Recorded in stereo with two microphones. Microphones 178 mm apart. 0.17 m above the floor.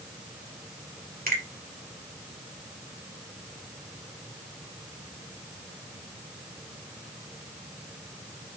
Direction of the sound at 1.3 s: 55° right (ahead or behind).